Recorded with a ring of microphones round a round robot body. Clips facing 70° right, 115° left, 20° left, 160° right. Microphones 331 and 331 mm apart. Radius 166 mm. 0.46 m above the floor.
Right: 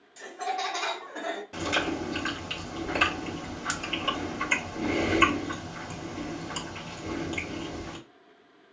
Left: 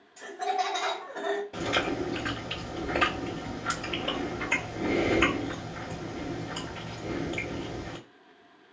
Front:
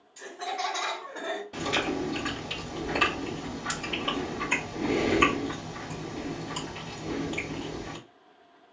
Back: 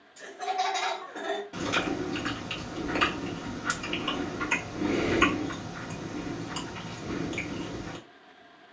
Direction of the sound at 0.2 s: 65° right.